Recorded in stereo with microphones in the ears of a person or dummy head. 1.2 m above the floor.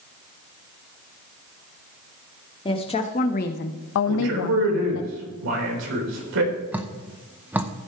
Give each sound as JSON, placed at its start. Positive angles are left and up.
{"t": 2.6, "sound": "a woman speaking", "side_deg": 20, "distance_m": 1.4}
{"t": 4.1, "sound": "a man speaking", "side_deg": -60, "distance_m": 4.0}
{"t": 6.7, "sound": "dripping", "side_deg": -5, "distance_m": 0.6}